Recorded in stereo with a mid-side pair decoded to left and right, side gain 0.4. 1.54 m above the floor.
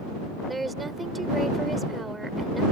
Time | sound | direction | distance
0.5 | a woman speaking | 20° right | ?